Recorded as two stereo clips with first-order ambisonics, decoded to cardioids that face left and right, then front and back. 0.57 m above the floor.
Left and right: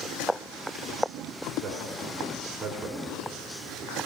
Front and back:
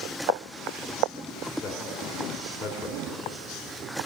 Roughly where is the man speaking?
Ahead right.